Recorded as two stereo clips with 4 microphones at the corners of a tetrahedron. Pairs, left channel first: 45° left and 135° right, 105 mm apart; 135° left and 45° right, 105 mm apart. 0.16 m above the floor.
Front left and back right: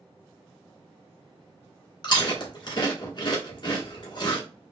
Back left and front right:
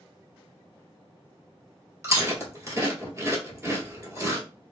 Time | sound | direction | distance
2.0 | chewing | 10° left | 1.2 m